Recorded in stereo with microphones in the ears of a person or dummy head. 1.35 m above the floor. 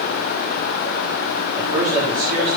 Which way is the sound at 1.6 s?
25° right (ahead or behind).